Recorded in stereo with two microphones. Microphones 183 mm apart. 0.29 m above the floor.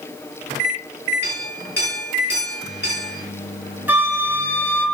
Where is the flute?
10° right (ahead or behind), 1.2 m.